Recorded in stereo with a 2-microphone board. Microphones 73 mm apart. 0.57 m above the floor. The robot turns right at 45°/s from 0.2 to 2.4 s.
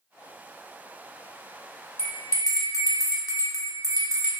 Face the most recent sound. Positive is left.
turn(degrees=50)  # may be behind; listen again after turning